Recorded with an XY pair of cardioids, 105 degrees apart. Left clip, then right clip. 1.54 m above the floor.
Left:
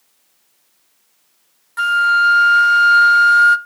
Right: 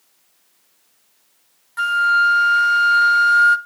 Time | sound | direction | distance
1.8 | a flute | 20° left | 0.8 m